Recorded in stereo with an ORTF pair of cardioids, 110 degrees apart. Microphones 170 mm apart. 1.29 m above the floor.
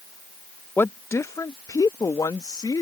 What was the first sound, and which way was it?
A woman speaking, 10° left.